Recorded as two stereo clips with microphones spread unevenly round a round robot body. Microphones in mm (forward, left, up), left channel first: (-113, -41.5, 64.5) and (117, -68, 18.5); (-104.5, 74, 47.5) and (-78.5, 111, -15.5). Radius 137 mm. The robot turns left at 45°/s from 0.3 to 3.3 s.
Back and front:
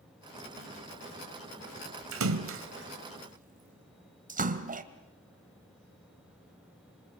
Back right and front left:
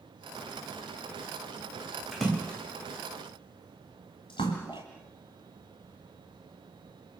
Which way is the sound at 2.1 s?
5° right.